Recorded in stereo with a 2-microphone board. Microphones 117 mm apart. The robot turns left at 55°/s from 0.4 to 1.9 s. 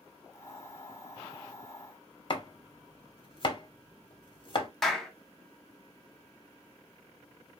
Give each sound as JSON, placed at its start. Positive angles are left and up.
{"t": 2.3, "sound": "chopping", "side_deg": 45, "distance_m": 0.9}
{"t": 4.8, "sound": "a clap", "side_deg": 0, "distance_m": 1.3}